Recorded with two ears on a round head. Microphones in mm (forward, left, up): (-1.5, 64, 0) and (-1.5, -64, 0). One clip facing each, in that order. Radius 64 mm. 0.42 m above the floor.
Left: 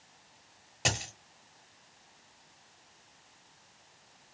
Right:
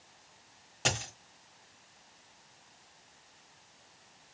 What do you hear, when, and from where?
0.8 s a dropped coin: 10° left (ahead or behind), 1.0 m